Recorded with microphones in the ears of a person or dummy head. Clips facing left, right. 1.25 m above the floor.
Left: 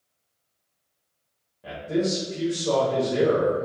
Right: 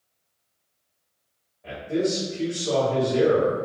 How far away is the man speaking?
About 1.3 m.